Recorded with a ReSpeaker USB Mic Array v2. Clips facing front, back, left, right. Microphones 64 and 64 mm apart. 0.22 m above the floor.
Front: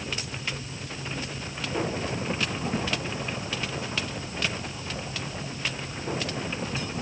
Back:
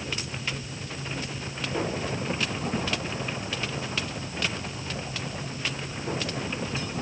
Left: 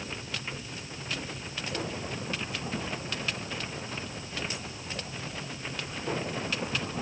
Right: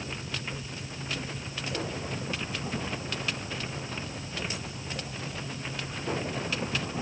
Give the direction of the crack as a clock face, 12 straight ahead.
No crack in this recording.